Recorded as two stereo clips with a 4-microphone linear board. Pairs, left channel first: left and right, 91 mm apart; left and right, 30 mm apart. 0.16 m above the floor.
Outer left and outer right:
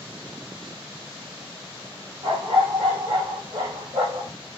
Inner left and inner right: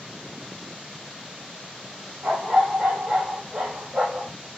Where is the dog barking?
70° right (ahead or behind), 1.7 m; by 4.3 s 60° right (ahead or behind), 2.5 m.